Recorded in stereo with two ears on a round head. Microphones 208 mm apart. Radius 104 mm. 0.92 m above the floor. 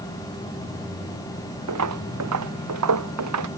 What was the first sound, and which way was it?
Footsteps, 80° right.